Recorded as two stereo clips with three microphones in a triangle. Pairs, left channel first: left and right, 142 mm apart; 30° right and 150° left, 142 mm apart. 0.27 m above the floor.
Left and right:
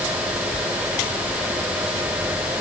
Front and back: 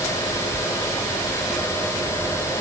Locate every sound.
Only background noise.